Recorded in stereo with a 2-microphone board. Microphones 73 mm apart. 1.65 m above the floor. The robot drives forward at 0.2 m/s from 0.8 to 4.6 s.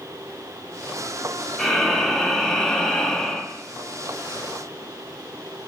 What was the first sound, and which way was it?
Breathing, 5° left (ahead or behind).